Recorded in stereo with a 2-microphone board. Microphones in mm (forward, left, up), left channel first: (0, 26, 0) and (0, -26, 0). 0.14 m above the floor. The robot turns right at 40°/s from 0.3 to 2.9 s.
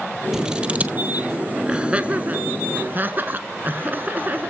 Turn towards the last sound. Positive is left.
turn(degrees=-40)  # may be behind; listen again after turning